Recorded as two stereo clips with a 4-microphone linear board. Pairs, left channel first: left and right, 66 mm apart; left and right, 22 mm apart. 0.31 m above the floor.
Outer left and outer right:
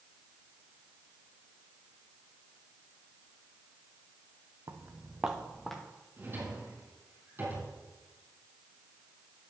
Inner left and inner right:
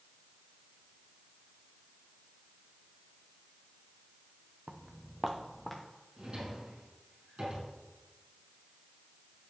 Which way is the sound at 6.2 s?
35° right (ahead or behind).